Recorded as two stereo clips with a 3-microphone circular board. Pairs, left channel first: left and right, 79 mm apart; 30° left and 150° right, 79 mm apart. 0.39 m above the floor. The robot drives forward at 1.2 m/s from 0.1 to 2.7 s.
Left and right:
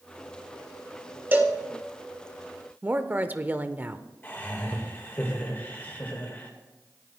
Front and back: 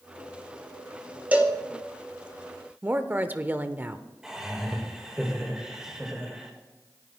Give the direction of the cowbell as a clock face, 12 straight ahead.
4 o'clock.